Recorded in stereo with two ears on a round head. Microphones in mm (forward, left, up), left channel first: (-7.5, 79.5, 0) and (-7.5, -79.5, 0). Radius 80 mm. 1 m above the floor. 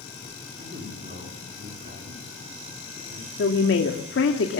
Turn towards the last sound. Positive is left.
turn(degrees=70)  # may be behind; listen again after turning